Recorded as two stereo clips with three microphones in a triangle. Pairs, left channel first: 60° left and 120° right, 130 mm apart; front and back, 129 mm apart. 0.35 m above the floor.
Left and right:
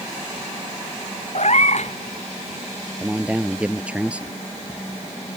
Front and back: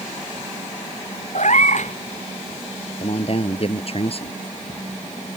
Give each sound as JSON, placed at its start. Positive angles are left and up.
{"t": 1.4, "sound": "a cat meowing", "azimuth_deg": 25}
{"t": 3.0, "sound": "a man speaking", "azimuth_deg": -40}